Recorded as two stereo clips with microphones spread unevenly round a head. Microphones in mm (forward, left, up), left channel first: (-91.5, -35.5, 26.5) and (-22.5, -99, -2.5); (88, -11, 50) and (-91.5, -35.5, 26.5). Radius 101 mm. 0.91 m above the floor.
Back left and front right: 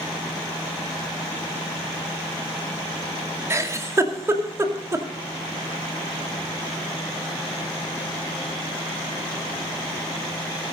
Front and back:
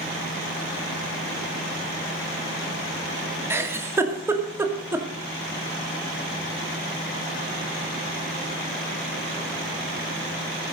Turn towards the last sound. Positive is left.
turn(degrees=-100)